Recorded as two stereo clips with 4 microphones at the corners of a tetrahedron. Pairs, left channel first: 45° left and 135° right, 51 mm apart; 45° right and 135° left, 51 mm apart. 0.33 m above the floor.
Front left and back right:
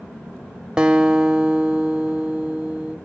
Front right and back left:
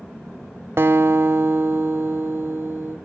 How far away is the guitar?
About 0.6 m.